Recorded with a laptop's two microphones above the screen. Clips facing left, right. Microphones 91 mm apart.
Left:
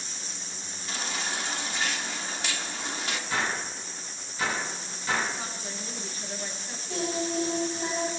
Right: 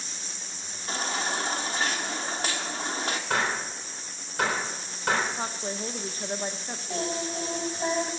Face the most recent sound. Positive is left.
turn(degrees=-35)  # may be behind; listen again after turning